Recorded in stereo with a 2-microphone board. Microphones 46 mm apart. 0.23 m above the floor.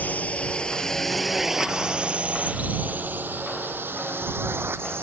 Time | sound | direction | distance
0.0 | a drone | 35° left (ahead or behind) | ?